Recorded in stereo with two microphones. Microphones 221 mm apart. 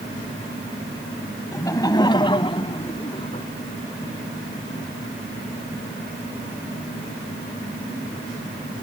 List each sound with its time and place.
1.5 s laughter: 15° left (ahead or behind); by 3.5 s 30° left (ahead or behind)